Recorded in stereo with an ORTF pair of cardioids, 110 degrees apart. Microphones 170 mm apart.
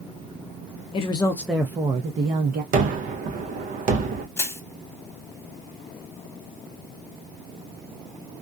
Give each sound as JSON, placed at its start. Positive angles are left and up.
{"t": 0.9, "sound": "a woman speaking", "azimuth_deg": 35, "distance_m": 0.6}
{"t": 2.7, "sound": "a gunshot", "azimuth_deg": -55, "distance_m": 0.7}
{"t": 4.4, "sound": "crushing", "azimuth_deg": 15, "distance_m": 1.0}